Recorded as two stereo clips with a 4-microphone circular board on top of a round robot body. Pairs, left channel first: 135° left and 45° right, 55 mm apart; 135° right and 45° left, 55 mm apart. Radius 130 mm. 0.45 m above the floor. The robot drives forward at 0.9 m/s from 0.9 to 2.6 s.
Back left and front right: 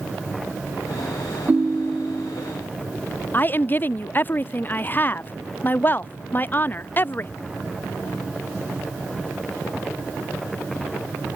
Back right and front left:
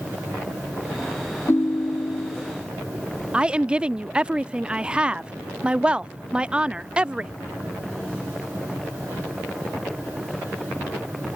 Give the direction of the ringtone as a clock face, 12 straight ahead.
3 o'clock.